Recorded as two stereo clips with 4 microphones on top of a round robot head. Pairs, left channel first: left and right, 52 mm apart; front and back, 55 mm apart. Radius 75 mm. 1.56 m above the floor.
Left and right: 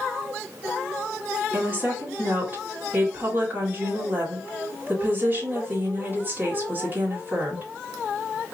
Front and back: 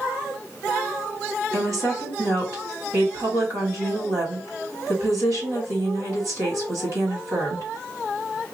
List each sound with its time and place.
1.5 s a woman speaking: 150° right, 1.8 m